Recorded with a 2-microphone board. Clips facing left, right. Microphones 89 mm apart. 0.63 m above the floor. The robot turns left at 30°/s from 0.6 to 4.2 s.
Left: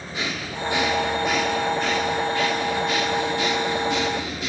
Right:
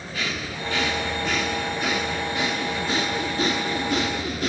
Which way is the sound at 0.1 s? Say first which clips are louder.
Left 1 dB; 25° left.